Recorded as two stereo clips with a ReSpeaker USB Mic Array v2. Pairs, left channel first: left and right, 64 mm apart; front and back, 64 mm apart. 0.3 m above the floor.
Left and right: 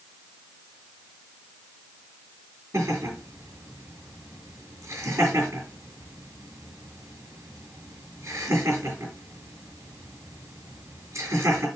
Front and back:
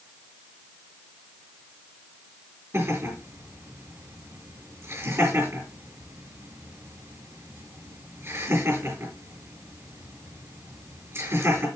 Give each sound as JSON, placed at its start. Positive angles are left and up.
{"t": 2.7, "sound": "laughter", "azimuth_deg": -130, "distance_m": 5.0}